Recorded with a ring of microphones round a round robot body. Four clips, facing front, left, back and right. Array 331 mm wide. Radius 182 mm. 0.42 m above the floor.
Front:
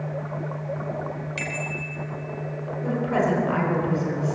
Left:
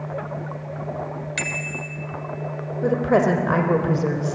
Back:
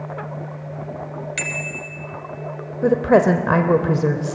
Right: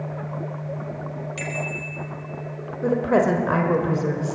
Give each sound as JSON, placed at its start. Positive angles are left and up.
{"t": 1.4, "sound": "a bicycle bell", "azimuth_deg": 130, "distance_m": 2.0}
{"t": 2.8, "sound": "a woman speaking", "azimuth_deg": 175, "distance_m": 1.7}